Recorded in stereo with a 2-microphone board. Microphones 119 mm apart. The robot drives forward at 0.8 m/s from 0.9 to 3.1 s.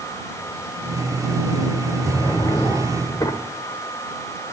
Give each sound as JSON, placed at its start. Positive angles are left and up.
{"t": 2.1, "sound": "a drawer", "side_deg": 30, "distance_m": 1.2}